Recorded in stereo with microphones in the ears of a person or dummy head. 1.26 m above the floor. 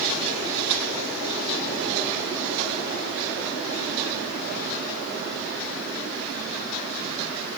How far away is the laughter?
No laughter in this recording.